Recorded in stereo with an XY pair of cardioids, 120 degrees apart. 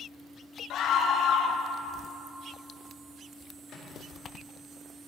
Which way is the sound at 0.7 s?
65° left.